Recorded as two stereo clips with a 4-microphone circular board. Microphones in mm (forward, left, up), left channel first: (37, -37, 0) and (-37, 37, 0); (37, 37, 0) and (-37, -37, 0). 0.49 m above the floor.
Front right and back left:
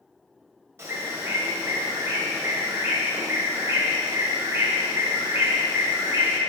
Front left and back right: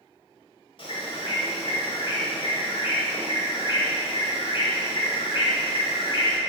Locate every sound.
0.8 s a bird: 70° left, 1.7 m